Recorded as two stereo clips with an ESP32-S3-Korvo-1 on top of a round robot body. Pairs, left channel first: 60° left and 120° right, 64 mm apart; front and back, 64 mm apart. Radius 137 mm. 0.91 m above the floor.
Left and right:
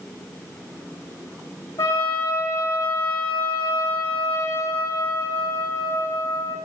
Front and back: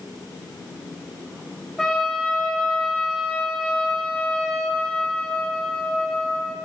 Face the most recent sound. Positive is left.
turn(degrees=85)